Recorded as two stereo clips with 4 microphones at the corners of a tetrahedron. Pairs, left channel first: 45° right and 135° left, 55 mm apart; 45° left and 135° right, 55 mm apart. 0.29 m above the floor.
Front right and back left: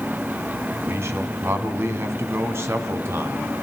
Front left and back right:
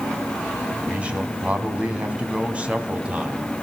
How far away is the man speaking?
About 3 m.